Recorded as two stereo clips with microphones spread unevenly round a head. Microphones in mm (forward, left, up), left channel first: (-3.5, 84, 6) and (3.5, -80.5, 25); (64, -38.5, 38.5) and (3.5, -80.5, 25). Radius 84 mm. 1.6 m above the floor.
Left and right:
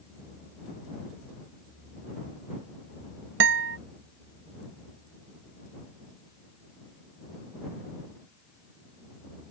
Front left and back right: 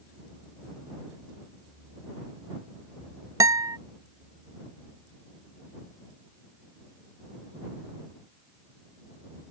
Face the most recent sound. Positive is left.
turn(degrees=-105)